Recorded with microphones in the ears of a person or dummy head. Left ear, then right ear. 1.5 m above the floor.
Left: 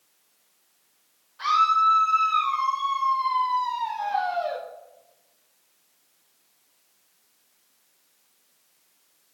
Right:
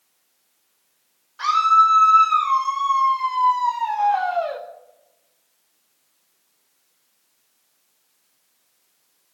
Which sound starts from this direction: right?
A scream, at 1.4 s.